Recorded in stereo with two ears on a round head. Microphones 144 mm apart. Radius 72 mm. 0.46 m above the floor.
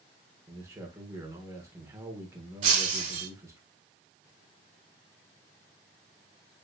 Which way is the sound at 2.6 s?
50° right (ahead or behind).